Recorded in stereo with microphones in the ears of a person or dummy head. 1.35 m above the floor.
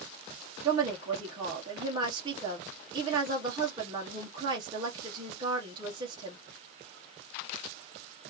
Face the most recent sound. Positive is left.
turn(degrees=-25)  # may be behind; listen again after turning